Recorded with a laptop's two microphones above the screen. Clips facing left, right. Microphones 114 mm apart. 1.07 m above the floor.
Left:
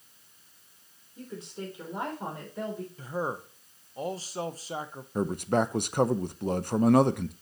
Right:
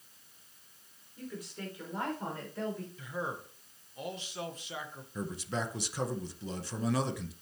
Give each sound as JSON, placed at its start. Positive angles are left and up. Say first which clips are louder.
{"t": 1.2, "sound": "a woman speaking", "louder": "left 3 dB", "side_deg": 30, "distance_m": 3.0}
{"t": 3.0, "sound": "a man speaking", "louder": "left 6 dB", "side_deg": 35, "distance_m": 0.9}
{"t": 5.2, "sound": "a man speaking", "louder": "left 10 dB", "side_deg": 55, "distance_m": 0.6}